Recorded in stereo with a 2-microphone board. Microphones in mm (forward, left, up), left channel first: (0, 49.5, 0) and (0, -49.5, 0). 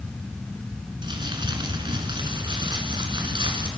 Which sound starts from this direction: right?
Crumpling, at 1.0 s.